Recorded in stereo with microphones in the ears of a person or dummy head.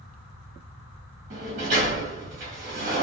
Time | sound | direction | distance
1.3 | a sliding door | 40° right (ahead or behind) | 1.2 m